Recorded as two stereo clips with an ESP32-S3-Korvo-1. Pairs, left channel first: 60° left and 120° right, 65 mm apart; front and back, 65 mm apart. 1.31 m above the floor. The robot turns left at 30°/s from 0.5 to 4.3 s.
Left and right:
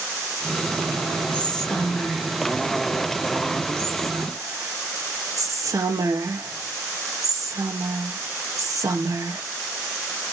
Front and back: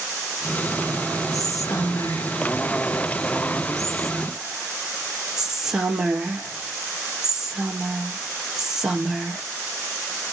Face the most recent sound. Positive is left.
turn(degrees=-100)